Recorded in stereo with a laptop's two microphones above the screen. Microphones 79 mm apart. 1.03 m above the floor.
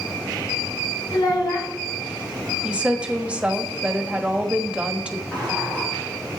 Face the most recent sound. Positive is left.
turn(degrees=25)  # may be behind; listen again after turning